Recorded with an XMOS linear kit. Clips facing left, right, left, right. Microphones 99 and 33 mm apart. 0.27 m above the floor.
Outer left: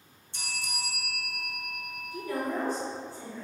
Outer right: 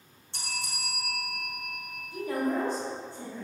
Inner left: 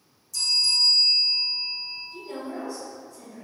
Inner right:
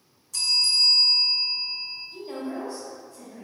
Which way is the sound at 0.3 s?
65° right (ahead or behind).